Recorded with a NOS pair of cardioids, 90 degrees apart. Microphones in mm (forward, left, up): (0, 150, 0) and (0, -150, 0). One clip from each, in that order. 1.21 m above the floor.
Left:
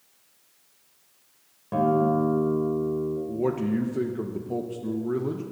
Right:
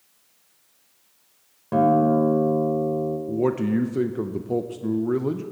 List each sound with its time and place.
1.7 s a guitar: 25° right, 2.5 m
3.3 s a man speaking: 20° right, 0.6 m